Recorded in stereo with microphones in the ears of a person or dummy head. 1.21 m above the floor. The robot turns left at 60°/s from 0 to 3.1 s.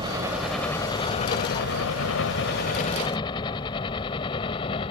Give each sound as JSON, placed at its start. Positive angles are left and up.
{"t": 0.0, "sound": "a helicopter", "side_deg": -25}